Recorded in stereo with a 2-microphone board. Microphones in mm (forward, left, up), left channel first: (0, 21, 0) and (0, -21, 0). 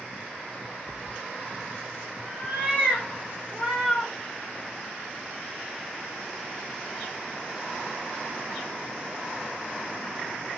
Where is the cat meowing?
30° right (ahead or behind), 1.3 m; by 4.1 s 25° right (ahead or behind), 3 m.